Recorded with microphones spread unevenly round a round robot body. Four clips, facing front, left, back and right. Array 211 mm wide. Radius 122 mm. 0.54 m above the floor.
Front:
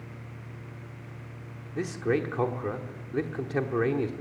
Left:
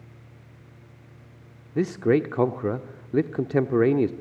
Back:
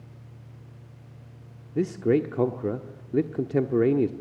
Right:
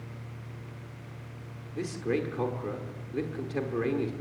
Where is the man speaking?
120° left, 0.8 m.